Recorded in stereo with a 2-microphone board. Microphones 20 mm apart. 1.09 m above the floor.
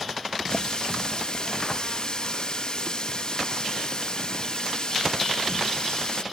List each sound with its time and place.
0.5 s a running tap: 50° left (ahead or behind)